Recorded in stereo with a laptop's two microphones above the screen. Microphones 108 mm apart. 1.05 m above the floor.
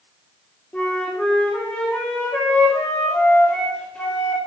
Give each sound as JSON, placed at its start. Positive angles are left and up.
{"t": 0.7, "sound": "a flute", "side_deg": 10, "distance_m": 2.5}